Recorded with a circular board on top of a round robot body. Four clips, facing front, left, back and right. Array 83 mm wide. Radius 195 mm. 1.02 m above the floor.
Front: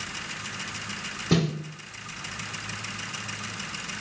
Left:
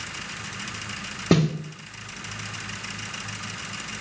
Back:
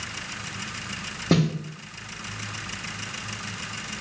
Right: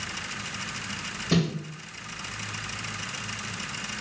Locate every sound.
1.3 s a snare drum: 110° left, 0.8 m